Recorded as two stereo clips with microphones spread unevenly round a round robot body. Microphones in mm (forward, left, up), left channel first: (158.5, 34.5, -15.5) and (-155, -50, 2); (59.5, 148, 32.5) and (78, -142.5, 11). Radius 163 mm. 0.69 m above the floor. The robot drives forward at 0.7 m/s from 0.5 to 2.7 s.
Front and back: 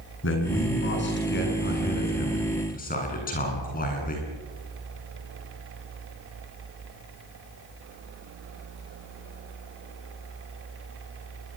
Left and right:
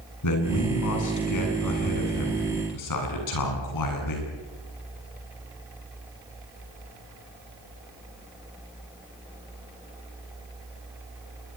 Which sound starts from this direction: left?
A man speaking, at 0.2 s.